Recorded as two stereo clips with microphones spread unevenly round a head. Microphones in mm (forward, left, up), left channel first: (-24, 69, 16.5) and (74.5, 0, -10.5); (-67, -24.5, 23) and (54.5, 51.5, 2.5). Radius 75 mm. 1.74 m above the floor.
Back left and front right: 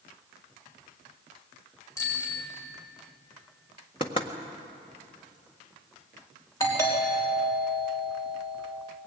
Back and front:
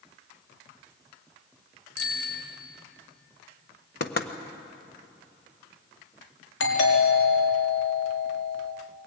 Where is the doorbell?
145° right, 4.5 m.